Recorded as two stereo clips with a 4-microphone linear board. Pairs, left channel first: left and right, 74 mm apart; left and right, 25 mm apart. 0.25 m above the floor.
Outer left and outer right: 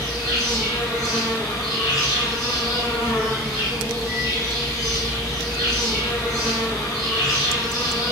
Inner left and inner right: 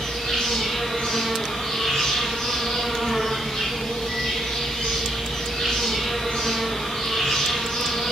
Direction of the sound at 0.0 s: 55° left (ahead or behind).